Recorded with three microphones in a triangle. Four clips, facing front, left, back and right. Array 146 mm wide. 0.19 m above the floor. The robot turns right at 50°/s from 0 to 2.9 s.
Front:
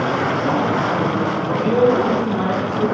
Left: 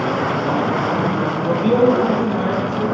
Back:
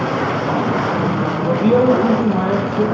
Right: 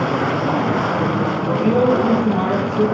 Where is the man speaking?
130° left, 4.5 m; by 2.9 s 160° right, 4.5 m.